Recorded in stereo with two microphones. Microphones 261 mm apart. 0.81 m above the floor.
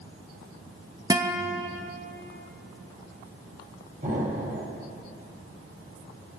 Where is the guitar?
15° right (ahead or behind), 0.8 m.